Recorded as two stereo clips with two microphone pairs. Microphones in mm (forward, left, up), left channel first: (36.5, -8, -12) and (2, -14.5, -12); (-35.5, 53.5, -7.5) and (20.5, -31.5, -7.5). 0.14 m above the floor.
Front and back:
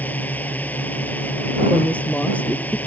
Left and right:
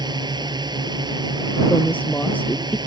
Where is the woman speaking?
55° left.